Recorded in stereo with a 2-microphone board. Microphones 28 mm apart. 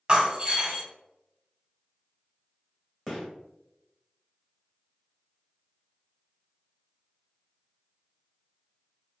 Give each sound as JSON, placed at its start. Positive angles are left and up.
{"t": 0.1, "sound": "breaking glass", "side_deg": -35, "distance_m": 1.1}
{"t": 3.1, "sound": "a gunshot", "side_deg": 15, "distance_m": 1.2}